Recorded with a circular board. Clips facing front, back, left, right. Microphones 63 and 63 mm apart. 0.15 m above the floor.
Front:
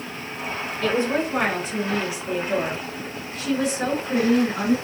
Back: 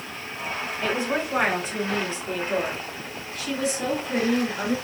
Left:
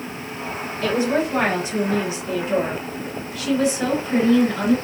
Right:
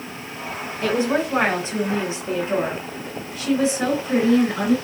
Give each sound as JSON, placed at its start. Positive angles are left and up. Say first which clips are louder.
{"t": 0.8, "sound": "a woman speaking", "louder": "front 4 dB, even", "azimuth_deg": -120, "distance_m": 1.6}